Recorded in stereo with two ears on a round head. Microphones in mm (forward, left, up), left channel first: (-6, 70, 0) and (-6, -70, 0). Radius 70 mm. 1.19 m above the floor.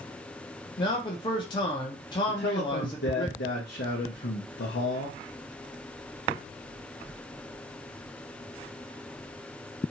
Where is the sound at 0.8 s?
30° left (ahead or behind), 0.5 m.